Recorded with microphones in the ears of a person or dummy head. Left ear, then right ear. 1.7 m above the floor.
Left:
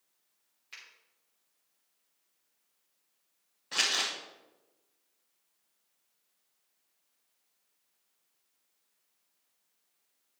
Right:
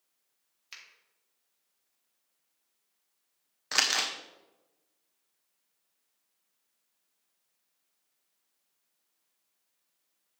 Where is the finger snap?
45° right (ahead or behind), 3.5 m.